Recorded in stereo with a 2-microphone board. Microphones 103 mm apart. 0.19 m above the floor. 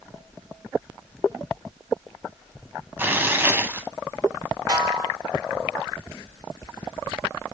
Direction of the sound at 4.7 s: 40° right (ahead or behind).